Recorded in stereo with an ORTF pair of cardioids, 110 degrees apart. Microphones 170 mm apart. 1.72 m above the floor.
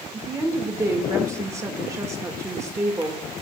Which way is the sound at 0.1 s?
20° right.